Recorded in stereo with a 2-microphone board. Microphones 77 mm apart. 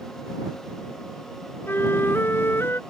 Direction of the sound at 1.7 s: 35° left (ahead or behind).